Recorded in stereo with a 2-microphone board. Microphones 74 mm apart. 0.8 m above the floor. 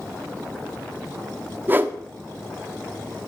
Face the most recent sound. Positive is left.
turn(degrees=-25)  # may be behind; listen again after turning